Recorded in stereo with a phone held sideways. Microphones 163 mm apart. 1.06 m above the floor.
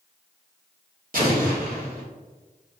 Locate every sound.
1.1 s an explosion: 60° right (ahead or behind), 1.5 m